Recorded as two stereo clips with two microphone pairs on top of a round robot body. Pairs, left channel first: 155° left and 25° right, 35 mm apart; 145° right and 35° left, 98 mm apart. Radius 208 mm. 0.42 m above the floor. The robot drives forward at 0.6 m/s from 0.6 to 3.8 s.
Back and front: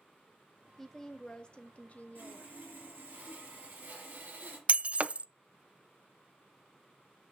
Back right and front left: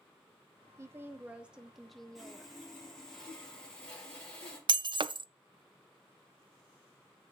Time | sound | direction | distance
0.8 | a woman speaking | 70° left | 1.3 m
2.1 | sawing | 55° right | 4.5 m
4.7 | breaking glass | 10° left | 0.5 m